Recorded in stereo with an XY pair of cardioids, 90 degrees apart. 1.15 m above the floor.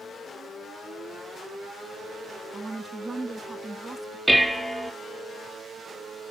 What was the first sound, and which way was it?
A woman speaking, 20° right.